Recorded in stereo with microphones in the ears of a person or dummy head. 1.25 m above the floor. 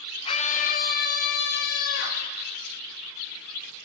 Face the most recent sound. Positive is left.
turn(degrees=65)  # may be behind; listen again after turning